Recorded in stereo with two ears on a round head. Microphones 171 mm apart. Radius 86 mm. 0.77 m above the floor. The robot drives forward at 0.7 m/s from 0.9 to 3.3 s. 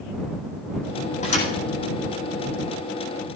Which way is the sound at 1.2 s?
40° left (ahead or behind).